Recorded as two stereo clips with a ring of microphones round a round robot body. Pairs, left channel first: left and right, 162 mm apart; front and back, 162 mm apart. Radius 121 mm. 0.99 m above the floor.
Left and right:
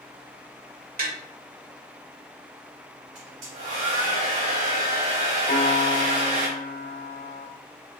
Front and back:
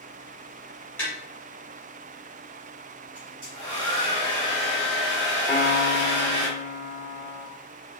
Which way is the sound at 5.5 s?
70° left.